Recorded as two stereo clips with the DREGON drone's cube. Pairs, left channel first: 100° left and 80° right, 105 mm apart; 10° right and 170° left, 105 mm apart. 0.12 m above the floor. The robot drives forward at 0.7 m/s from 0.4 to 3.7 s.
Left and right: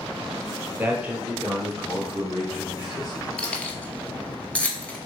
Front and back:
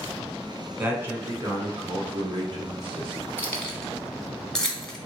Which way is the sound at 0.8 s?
130° right.